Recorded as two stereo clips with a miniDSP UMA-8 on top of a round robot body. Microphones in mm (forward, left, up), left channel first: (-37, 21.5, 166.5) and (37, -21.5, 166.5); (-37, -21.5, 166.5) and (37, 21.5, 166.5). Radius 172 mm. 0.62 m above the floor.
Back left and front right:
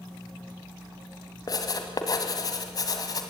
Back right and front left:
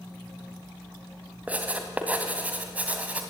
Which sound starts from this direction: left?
Writing, at 1.5 s.